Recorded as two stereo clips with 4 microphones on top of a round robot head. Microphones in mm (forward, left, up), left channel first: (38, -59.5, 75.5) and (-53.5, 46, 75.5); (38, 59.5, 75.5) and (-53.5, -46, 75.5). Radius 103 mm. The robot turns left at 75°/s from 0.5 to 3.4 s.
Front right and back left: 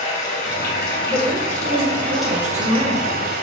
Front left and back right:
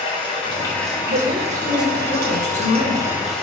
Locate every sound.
0.0 s running water: 10° right, 1.0 m; by 3.4 s 130° left, 1.0 m
1.1 s a woman speaking: 160° right, 1.7 m; by 3.2 s 40° left, 1.7 m